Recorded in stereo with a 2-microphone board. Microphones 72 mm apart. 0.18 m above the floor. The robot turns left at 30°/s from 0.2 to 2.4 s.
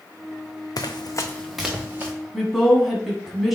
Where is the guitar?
No guitar in this recording.